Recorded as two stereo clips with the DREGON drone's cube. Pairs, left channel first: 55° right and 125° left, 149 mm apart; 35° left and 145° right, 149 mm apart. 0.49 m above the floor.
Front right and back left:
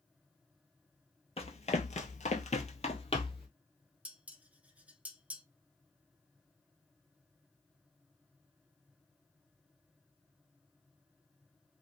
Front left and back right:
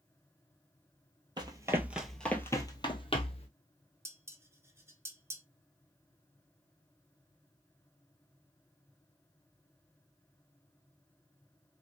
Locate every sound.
1.4 s running footsteps: 90° right, 0.8 m; by 3.5 s 5° right, 1.2 m
4.0 s dishes clattering: 175° right, 0.6 m